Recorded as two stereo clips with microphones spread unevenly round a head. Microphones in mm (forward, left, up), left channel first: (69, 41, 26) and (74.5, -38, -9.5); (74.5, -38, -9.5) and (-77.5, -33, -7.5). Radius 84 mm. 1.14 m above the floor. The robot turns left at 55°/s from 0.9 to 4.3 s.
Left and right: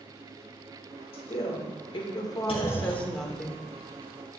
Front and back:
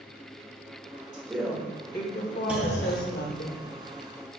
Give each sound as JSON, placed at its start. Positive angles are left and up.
{"t": 1.1, "sound": "a woman speaking", "azimuth_deg": 110, "distance_m": 1.6}
{"t": 2.5, "sound": "a clunk", "azimuth_deg": 95, "distance_m": 1.6}